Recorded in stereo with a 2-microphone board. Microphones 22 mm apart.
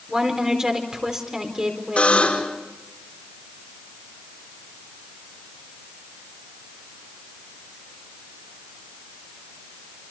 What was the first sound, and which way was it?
A woman speaking, 30° right (ahead or behind).